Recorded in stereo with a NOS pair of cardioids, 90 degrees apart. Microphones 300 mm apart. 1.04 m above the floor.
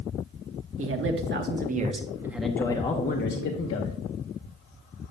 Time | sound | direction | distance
0.8 | a man speaking | 45° right | 1.3 m